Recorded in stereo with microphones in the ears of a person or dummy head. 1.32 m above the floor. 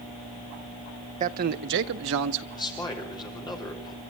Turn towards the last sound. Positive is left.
turn(degrees=20)  # may be behind; listen again after turning